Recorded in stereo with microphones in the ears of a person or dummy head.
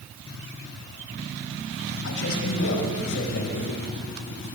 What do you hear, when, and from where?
2.0 s a man speaking: 70° left (ahead or behind), 5.5 m; by 3.8 s 55° left (ahead or behind), 4.5 m